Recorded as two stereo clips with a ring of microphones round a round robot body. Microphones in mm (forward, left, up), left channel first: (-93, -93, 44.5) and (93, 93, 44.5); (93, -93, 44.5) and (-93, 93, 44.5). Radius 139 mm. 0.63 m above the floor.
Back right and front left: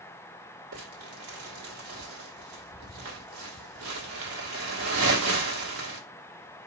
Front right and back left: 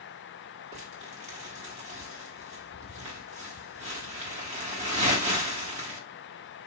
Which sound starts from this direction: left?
Crumpling, at 0.7 s.